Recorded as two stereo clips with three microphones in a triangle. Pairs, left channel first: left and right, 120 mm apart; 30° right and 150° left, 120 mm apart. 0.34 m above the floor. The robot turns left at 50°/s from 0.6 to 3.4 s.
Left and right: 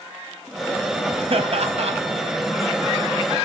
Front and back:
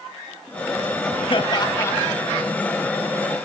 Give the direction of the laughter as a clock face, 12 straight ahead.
2 o'clock.